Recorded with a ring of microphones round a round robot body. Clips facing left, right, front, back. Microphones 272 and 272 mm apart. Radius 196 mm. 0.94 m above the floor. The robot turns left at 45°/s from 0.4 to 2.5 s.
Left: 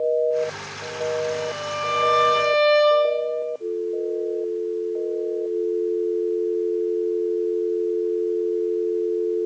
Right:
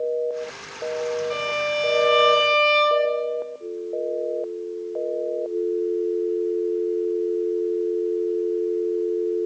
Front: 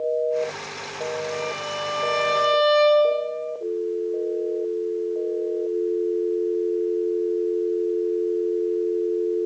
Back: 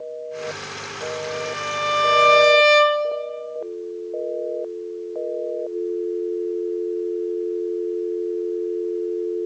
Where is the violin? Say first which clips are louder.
Right 1 dB, even; 120° right, 2.5 m; by 3.2 s 170° right, 2.5 m.